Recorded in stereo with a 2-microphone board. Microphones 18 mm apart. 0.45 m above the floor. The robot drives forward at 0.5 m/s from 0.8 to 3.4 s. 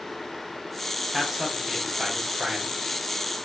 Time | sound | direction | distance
1.1 | a man speaking | 20° right (ahead or behind) | 4 m